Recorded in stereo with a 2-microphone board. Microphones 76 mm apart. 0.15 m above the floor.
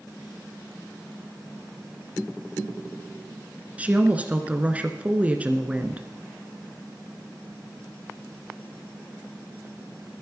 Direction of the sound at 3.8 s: 20° right (ahead or behind).